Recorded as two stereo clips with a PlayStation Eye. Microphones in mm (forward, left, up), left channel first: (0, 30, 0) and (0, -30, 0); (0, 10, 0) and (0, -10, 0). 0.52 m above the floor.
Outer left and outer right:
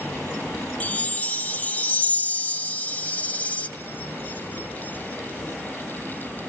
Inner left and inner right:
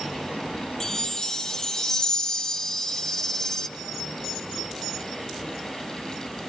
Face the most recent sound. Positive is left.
turn(degrees=25)  # may be behind; listen again after turning